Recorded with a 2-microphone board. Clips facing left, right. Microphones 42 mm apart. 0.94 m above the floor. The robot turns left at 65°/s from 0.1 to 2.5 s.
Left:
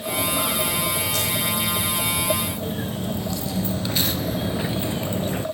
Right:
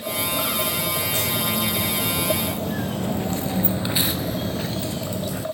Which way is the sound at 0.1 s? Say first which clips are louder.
Left 1 dB; 40° left (ahead or behind).